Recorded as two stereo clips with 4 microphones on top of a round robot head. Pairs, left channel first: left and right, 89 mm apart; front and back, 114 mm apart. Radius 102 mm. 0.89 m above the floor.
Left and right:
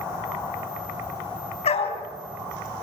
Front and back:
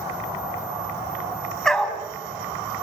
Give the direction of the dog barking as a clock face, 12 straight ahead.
9 o'clock.